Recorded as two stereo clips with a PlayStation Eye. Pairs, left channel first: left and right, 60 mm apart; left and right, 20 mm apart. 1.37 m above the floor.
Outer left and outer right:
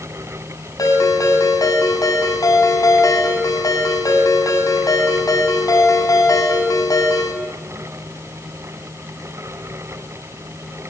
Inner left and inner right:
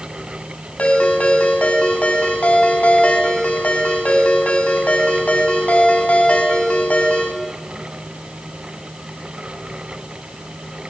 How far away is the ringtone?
About 4 m.